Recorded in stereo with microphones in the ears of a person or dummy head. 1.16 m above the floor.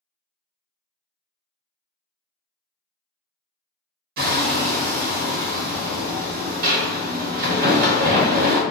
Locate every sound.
4.2 s hammering: 45° right (ahead or behind), 0.8 m